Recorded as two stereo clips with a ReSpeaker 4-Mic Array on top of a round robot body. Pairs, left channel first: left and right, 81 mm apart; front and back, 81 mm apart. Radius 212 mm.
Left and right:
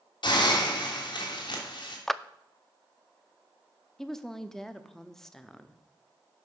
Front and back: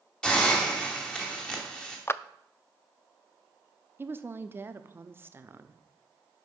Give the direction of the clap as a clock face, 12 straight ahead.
12 o'clock.